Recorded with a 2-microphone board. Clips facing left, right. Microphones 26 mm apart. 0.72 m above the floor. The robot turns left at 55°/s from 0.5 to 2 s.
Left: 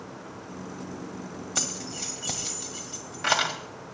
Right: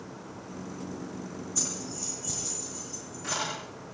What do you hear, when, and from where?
1.6 s keys jangling: 85° left, 2.5 m; by 3.5 s 70° left (ahead or behind), 2.5 m